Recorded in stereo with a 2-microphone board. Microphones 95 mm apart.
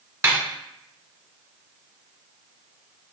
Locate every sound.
0.2 s a snare drum: 30° right (ahead or behind), 0.9 m